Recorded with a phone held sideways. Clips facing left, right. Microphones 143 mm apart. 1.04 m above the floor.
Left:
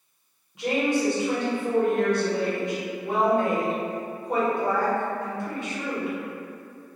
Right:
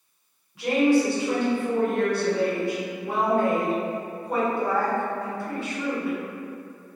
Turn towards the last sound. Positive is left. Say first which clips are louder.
# right 4 dB
turn(degrees=20)  # may be behind; listen again after turning